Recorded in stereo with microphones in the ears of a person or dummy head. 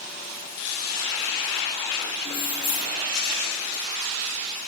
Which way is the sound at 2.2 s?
30° left (ahead or behind).